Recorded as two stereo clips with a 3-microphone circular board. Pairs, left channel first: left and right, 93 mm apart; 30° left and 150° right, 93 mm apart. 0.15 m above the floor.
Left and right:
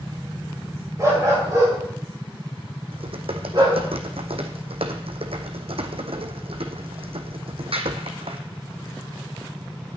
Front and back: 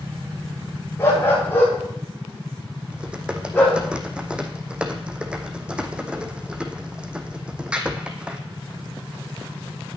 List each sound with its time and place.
1.0 s a dog barking: 35° right, 7.5 m; by 3.8 s 50° right, 6 m
2.9 s typing on a keyboard: 70° right, 1.4 m